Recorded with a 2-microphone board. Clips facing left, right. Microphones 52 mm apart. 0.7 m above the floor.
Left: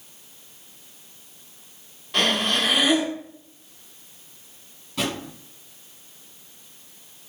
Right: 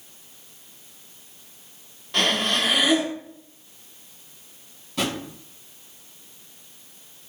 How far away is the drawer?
About 1.9 m.